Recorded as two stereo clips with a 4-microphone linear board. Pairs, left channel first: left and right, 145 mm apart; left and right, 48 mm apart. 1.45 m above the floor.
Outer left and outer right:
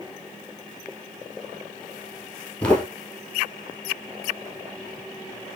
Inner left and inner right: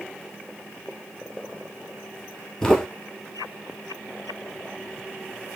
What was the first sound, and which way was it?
Footsteps, 10° left (ahead or behind).